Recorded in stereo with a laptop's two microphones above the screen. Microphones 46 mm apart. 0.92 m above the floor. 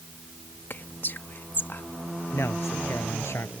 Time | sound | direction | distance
0.7 | whispering | 45° left (ahead or behind) | ?
2.3 | a man speaking | 70° left (ahead or behind) | ?